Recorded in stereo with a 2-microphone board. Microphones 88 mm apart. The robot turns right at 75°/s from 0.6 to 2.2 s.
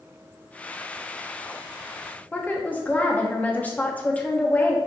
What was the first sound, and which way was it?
A woman speaking, 15° left (ahead or behind).